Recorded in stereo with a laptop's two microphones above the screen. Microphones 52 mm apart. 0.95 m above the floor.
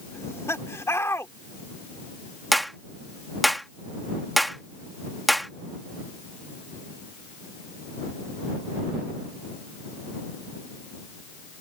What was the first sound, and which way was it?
Laughter, 65° left (ahead or behind).